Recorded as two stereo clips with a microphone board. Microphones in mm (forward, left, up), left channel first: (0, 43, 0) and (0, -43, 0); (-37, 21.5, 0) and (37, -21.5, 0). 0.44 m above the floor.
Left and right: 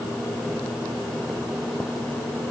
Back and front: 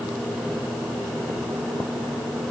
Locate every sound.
Only background noise.